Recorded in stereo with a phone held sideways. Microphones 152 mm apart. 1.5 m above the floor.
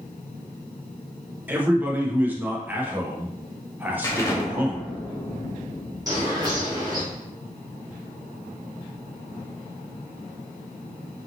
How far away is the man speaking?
About 0.9 m.